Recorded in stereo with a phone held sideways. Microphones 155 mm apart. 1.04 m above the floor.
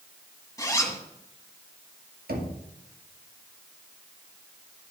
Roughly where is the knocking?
Right.